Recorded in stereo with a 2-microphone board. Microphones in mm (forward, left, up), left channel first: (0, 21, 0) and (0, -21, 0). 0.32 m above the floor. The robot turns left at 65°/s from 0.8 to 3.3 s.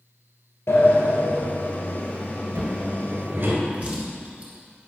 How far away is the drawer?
About 2.5 m.